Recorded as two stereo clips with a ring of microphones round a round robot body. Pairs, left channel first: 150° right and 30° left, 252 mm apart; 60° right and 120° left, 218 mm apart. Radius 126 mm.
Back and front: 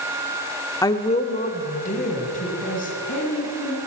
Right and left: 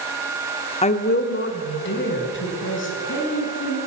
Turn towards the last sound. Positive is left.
turn(degrees=-90)